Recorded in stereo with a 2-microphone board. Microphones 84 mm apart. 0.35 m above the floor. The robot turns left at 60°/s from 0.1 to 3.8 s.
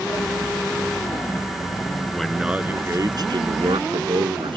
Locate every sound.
2.1 s a man speaking: 10° left; by 4.6 s 90° right